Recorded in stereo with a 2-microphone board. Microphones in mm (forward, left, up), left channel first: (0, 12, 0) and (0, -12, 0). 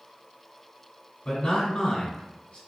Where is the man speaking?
50° left (ahead or behind), 1.6 m.